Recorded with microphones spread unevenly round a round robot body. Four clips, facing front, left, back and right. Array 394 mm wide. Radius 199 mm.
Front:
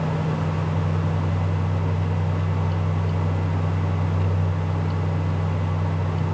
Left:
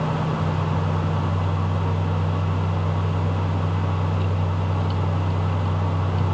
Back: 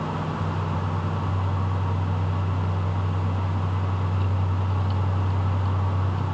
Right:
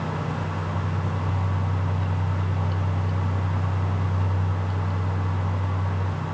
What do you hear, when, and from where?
Only background noise.